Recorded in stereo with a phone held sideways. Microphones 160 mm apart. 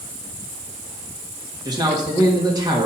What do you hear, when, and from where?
1.6 s a man speaking: 25° right (ahead or behind), 1.7 m